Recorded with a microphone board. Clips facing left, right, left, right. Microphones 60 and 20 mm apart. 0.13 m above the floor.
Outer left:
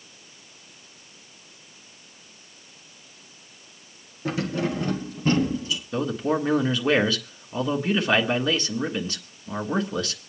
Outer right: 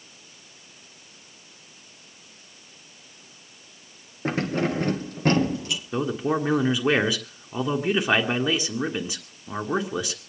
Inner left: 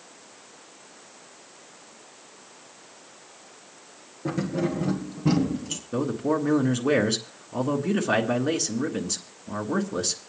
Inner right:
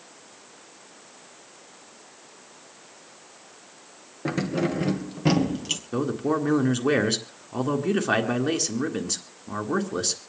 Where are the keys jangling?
40° right (ahead or behind), 1.3 m; by 5.8 s 65° right (ahead or behind), 1.9 m.